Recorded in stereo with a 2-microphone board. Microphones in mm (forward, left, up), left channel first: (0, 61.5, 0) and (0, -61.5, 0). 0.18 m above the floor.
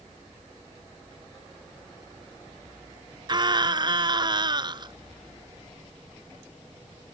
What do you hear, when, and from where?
3.3 s a scream: 40° right (ahead or behind)